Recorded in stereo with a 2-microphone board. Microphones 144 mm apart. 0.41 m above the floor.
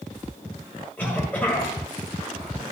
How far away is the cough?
About 2.5 m.